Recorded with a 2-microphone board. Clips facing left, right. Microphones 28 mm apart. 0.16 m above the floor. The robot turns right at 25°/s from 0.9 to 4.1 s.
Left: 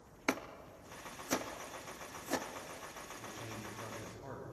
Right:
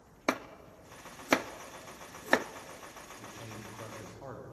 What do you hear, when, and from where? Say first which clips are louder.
0.3 s chopping: right 4 dB; 40° right (ahead or behind), 0.7 m; by 2.5 s 70° right (ahead or behind), 0.7 m
3.2 s a man speaking: even; 40° right (ahead or behind), 9 m; by 4.4 s 60° right (ahead or behind), 9 m